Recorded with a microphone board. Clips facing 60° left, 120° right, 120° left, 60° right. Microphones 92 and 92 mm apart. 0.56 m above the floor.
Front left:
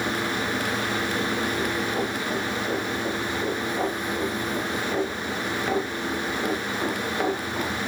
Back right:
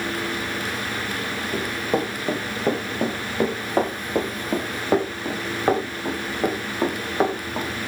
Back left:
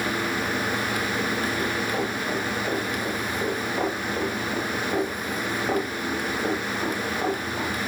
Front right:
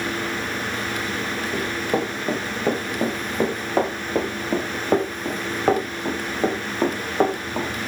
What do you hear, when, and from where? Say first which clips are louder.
1.5 s running footsteps: back right 2 dB, front right 2 dB; 100° right, 4.5 m; by 7.9 s 55° right, 3.5 m